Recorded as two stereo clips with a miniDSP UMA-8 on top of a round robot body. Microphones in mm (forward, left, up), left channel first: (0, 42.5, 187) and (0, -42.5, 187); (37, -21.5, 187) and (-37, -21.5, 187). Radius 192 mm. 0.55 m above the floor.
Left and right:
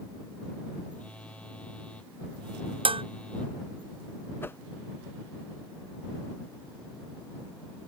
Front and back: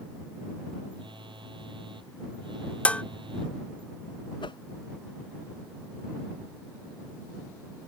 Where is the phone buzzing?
165° left.